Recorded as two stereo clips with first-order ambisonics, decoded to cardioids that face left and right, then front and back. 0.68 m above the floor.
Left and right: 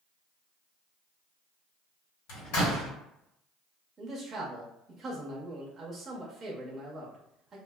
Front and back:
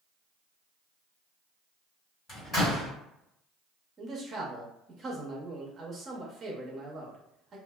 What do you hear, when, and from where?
2.3 s a door slam: 70° left, 1.5 m
4.0 s a man speaking: 145° right, 0.5 m